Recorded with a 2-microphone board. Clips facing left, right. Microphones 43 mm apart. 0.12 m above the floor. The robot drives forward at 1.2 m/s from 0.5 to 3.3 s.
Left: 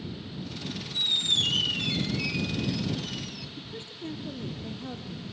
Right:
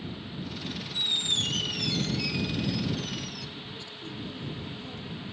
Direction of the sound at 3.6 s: 35° left (ahead or behind).